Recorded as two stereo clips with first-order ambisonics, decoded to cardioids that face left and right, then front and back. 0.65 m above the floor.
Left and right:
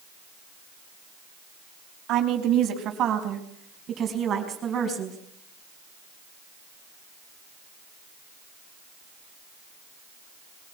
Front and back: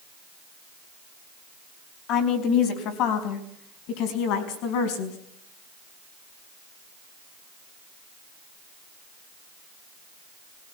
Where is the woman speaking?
45° right, 4 m; by 5.2 s 20° right, 5 m.